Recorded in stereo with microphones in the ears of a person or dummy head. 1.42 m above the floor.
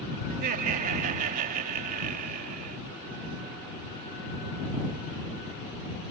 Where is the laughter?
50° right (ahead or behind).